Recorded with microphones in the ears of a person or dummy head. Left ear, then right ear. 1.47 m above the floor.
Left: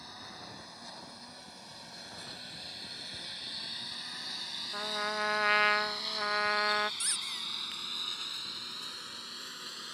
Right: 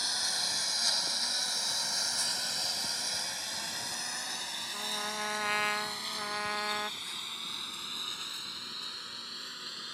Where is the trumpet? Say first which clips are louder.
Left 3 dB; 15° left (ahead or behind).